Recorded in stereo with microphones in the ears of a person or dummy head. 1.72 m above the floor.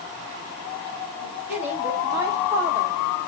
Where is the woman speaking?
5° right (ahead or behind), 3.5 m; by 3.0 s 15° right (ahead or behind), 2 m.